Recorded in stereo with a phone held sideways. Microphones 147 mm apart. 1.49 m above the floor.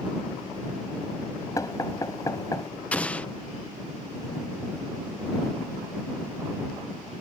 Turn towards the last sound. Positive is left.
turn(degrees=10)  # may be behind; listen again after turning